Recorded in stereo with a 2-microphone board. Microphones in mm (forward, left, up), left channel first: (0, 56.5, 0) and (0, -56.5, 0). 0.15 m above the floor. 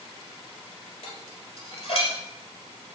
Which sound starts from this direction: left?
Dishes clattering, at 1.0 s.